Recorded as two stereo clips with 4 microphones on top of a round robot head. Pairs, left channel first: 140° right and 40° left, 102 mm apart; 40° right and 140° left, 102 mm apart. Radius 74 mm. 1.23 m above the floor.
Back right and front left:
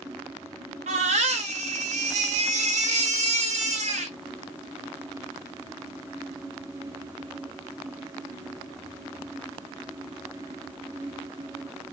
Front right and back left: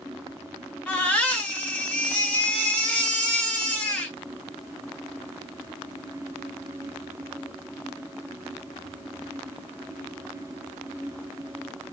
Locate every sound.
0.9 s a baby crying: 35° left, 1.6 m